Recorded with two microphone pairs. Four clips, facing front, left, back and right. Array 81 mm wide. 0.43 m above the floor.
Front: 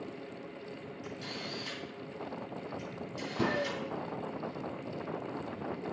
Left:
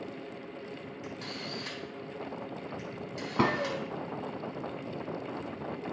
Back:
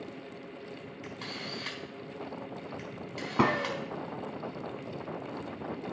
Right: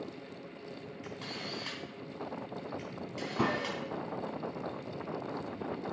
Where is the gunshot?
145° left, 0.7 m.